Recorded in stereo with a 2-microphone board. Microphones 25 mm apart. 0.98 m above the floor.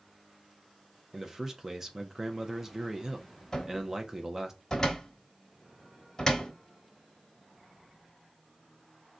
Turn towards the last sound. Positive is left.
turn(degrees=20)  # may be behind; listen again after turning